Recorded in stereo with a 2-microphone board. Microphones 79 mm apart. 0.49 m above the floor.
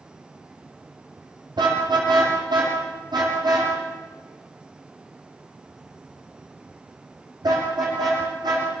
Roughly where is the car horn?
Right.